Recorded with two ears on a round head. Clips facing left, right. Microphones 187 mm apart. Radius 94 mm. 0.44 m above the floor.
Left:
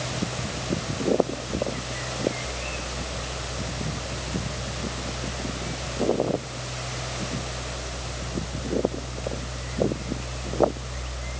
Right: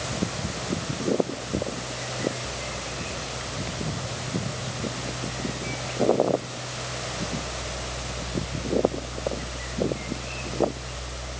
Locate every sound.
Only background noise.